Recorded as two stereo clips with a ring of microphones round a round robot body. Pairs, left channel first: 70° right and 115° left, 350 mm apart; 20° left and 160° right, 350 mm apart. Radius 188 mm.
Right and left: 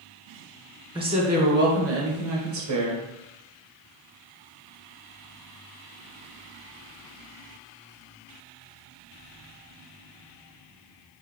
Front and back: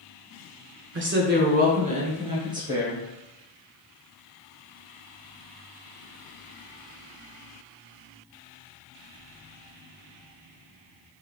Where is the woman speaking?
Straight behind, 1.2 m; by 3.0 s 120° left, 1.8 m.